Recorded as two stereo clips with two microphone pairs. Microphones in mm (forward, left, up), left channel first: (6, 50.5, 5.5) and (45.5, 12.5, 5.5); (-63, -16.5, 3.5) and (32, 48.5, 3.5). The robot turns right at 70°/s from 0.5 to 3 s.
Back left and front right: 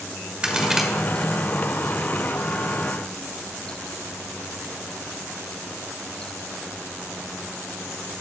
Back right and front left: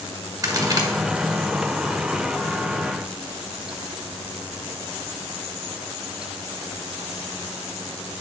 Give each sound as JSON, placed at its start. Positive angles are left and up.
{"t": 0.4, "sound": "a crack", "azimuth_deg": 15, "distance_m": 1.4}